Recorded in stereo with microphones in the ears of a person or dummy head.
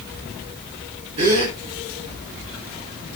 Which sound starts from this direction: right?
A gasp, at 1.2 s.